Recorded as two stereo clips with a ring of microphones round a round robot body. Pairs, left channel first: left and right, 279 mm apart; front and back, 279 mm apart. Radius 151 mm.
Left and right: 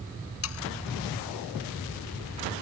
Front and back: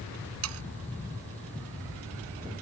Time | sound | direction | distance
0.4 | sawing | 135° left | ?